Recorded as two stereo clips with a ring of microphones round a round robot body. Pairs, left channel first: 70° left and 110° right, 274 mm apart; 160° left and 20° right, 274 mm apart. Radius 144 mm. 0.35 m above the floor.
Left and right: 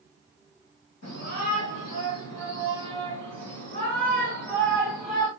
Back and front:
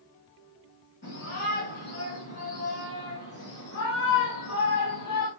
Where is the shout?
115° left, 5 m; by 5.3 s 160° left, 3 m.